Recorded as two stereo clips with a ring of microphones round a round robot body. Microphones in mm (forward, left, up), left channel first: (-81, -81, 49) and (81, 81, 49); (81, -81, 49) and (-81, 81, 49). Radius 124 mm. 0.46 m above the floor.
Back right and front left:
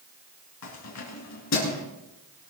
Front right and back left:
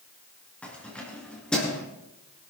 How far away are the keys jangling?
About 4 m.